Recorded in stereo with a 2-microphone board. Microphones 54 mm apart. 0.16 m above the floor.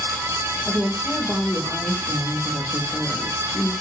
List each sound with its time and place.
0.7 s a woman speaking: 40° left (ahead or behind), 6 m; by 3.7 s 25° left (ahead or behind), 6 m